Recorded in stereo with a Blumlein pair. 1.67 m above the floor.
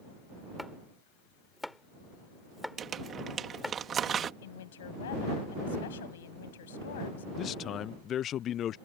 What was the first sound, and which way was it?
Chopping, 5° left.